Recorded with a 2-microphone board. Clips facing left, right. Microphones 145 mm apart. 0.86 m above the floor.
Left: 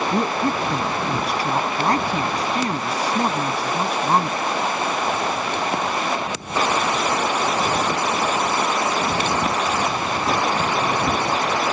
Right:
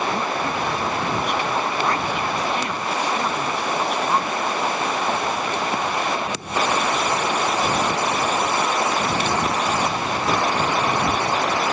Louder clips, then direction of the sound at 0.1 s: Left 3 dB; 35° left (ahead or behind).